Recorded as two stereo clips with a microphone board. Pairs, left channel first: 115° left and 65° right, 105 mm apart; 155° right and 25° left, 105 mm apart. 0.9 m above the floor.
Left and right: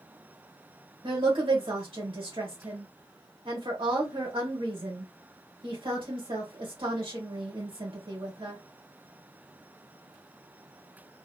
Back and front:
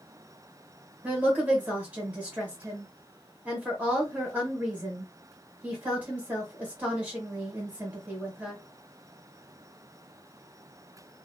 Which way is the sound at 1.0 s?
50° right.